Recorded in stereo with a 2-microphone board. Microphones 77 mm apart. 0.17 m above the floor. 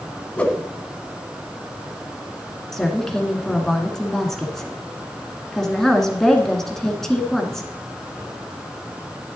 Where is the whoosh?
15° left (ahead or behind), 1.1 m.